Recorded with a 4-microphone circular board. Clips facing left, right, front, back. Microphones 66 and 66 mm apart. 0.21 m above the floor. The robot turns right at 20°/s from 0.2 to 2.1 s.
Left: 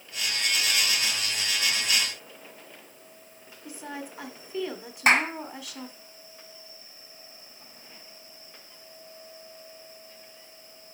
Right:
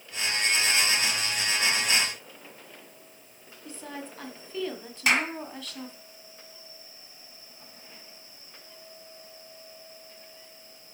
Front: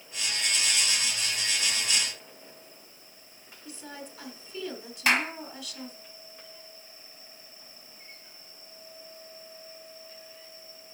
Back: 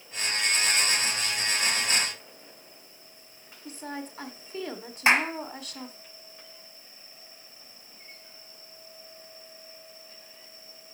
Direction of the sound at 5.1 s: 125° left.